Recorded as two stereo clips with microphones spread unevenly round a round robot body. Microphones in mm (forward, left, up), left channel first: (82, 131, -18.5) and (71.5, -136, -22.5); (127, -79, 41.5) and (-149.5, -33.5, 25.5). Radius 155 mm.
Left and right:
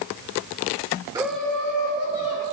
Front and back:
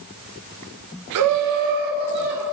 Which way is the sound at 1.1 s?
170° right.